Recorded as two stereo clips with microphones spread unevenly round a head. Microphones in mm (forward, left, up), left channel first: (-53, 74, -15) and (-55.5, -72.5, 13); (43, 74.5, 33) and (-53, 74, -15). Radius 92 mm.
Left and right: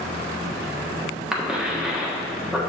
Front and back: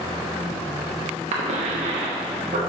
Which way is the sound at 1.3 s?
175° right.